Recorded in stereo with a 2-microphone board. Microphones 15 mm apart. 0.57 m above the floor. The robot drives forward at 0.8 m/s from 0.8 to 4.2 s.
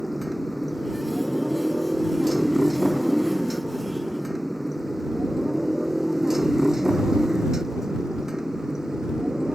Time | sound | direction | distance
0.0 | a motorcycle | 5° left (ahead or behind) | ?